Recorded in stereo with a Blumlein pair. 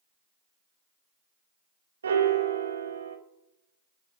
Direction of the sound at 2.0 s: 70° right.